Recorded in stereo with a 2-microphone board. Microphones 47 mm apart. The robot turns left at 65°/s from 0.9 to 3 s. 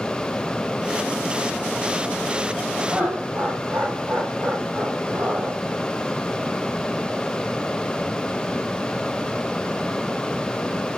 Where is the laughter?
50° right (ahead or behind), 3.5 m; by 5.6 s 45° right (ahead or behind), 3.5 m.